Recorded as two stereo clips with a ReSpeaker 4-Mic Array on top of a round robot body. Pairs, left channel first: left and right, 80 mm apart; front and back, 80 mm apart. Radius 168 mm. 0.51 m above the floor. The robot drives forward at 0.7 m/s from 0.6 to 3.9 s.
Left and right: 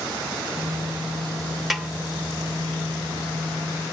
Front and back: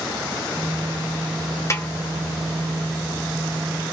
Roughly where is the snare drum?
Ahead.